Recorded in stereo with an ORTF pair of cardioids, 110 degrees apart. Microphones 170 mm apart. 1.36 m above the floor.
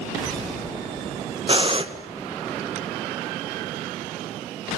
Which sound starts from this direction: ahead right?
Breathing, at 1.5 s.